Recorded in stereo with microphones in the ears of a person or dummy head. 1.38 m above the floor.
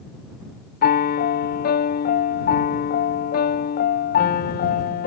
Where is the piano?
45° left (ahead or behind).